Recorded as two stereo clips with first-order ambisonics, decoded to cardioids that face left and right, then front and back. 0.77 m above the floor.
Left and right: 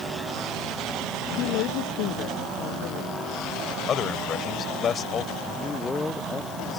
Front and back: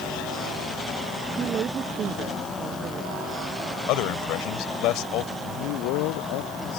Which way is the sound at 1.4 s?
120° left.